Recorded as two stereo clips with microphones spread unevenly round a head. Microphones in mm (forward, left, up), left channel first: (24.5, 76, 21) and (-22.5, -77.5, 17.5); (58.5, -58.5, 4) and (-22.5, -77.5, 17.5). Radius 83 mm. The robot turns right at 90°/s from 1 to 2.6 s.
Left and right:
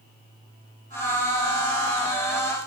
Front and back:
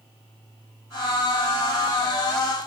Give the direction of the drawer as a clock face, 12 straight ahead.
No drawer in this recording.